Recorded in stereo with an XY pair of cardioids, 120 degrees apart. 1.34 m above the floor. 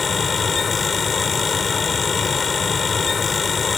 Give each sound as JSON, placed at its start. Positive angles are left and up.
{"t": 0.0, "sound": "a fan", "azimuth_deg": 30}